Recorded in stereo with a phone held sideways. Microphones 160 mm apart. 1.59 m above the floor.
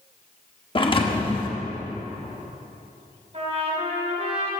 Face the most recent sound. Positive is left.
turn(degrees=-40)  # may be behind; listen again after turning